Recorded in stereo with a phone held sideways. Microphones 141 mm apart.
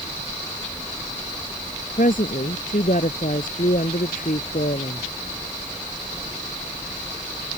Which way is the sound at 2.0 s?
80° left.